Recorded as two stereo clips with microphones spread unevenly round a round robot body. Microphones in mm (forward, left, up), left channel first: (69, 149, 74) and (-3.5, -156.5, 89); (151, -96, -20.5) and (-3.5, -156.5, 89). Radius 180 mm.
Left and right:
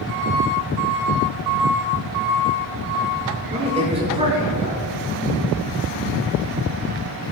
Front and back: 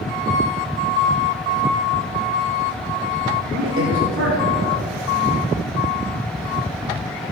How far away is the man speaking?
About 6.5 m.